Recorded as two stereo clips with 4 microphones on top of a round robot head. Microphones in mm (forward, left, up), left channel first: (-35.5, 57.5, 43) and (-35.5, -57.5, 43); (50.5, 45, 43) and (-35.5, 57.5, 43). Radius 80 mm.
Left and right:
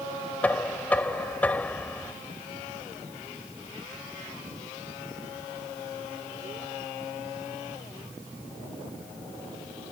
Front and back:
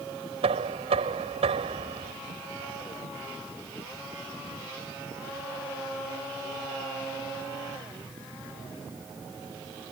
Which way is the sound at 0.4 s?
170° left.